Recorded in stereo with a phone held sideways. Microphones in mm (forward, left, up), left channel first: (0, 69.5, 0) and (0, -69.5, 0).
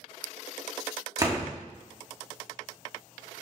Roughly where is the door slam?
Right.